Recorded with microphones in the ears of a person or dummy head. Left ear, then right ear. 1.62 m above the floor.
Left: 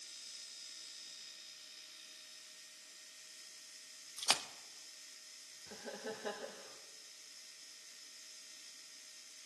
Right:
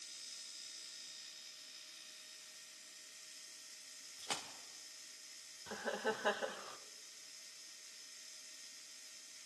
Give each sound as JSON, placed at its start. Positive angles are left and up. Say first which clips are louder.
{"t": 4.2, "sound": "a splash", "louder": "left 9 dB", "side_deg": 50, "distance_m": 0.9}
{"t": 5.7, "sound": "laughter", "louder": "right 7 dB", "side_deg": -40, "distance_m": 0.8}